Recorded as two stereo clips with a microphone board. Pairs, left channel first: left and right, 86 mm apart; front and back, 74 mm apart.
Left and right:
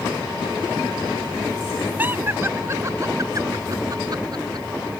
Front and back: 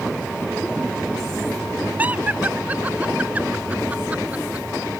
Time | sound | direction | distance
2.0 | laughter | 135° right | ?